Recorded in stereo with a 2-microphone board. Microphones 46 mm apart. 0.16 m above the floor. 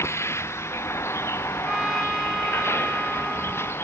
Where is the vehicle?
85° left; by 3.8 s 65° left (ahead or behind).